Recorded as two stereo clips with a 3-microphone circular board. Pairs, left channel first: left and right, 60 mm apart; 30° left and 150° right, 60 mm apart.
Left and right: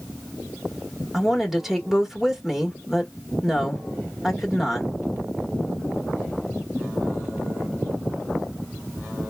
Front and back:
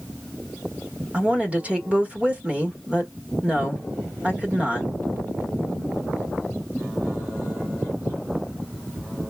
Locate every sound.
1.1 s a woman speaking: 175° right, 1.0 m